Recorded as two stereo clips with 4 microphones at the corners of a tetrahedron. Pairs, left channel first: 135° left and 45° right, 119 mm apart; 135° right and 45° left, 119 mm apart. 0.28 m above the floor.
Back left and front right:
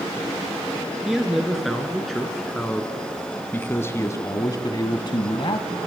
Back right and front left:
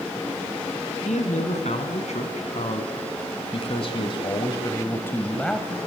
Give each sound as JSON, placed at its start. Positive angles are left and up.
{"t": 1.1, "sound": "a man speaking", "azimuth_deg": -130, "distance_m": 3.0}